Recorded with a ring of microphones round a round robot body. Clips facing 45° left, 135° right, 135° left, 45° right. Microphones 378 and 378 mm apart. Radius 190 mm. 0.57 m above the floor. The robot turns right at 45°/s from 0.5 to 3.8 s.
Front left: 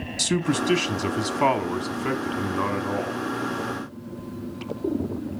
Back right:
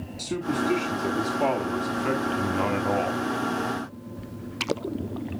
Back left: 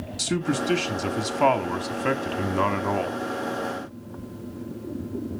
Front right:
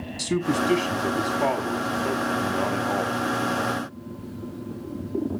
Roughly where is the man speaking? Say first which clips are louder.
Front left 3 dB, front right 2 dB; ahead left.